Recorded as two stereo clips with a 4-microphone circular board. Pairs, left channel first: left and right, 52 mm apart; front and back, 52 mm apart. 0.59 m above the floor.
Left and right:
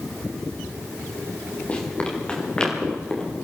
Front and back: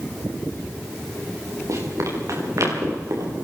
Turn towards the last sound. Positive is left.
turn(degrees=170)